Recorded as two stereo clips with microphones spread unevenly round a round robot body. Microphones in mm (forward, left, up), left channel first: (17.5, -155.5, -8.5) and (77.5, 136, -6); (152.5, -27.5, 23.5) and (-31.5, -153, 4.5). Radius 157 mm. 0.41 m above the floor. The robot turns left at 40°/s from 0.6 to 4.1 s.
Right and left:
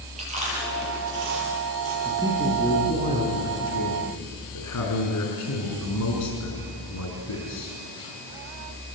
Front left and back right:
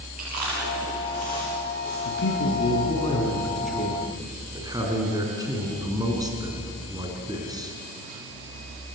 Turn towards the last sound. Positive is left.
turn(degrees=-75)